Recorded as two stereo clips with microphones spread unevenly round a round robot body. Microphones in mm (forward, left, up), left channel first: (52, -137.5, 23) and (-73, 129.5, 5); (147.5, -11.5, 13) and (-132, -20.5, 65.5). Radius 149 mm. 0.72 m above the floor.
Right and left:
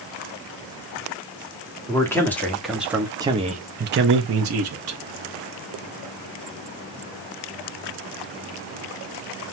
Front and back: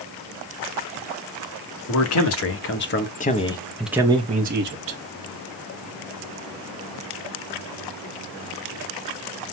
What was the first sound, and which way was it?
A man speaking, 15° left.